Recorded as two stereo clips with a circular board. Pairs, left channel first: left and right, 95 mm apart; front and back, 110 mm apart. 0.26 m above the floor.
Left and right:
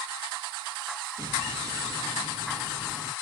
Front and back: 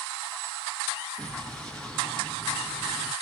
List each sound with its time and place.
1.2 s an explosion: 85° right, 1.5 m